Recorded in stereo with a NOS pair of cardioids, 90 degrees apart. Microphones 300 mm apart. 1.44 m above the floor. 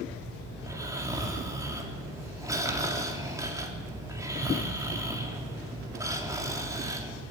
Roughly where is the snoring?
Ahead.